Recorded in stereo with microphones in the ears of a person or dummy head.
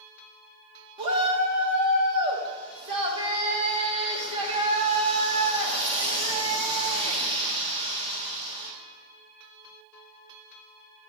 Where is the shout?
30° right (ahead or behind), 1.5 m.